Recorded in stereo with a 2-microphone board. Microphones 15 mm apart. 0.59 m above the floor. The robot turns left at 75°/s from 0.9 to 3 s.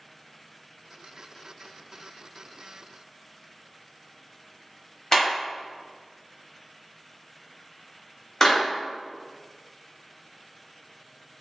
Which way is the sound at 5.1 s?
20° left (ahead or behind).